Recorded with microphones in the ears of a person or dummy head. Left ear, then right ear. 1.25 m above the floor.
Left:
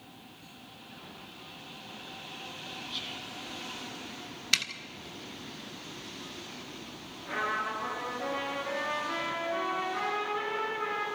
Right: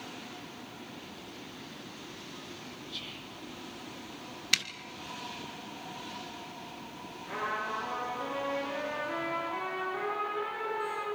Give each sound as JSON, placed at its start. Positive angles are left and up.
{"t": 2.9, "sound": "whispering", "side_deg": -5, "distance_m": 1.3}
{"t": 4.5, "sound": "a zipper", "side_deg": -5, "distance_m": 1.1}
{"t": 7.3, "sound": "a trumpet", "side_deg": 10, "distance_m": 9.0}